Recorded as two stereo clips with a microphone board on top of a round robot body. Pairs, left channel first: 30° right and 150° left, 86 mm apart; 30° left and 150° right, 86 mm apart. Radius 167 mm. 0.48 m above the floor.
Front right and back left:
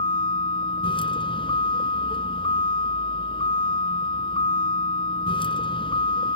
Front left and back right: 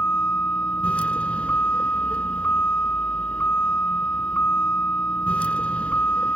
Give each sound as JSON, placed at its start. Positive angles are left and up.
{"t": 0.0, "sound": "a vehicle", "azimuth_deg": -45}